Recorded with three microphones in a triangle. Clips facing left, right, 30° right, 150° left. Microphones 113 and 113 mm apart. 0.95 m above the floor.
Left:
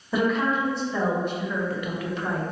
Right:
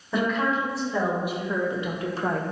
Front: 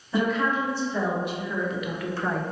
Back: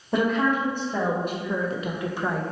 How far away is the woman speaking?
About 1.4 m.